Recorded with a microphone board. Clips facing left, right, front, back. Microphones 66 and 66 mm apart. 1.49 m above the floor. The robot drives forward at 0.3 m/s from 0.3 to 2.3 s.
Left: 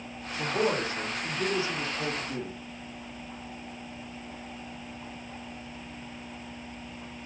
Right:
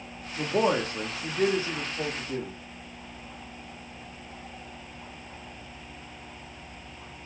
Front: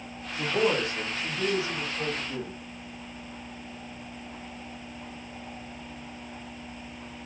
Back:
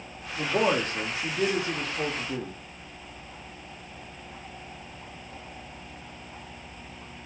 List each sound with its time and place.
0.4 s a man speaking: 110° right, 0.7 m; by 2.6 s 140° right, 1.0 m